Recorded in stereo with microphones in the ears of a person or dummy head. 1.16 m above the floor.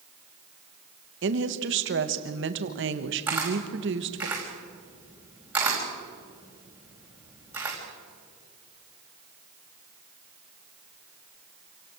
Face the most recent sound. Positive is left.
turn(degrees=-10)  # may be behind; listen again after turning